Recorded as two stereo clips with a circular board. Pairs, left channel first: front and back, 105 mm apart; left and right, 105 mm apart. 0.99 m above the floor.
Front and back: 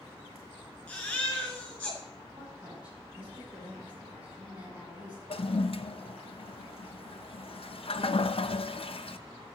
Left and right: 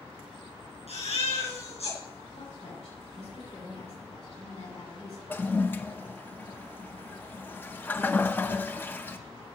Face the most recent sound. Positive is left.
turn(degrees=20)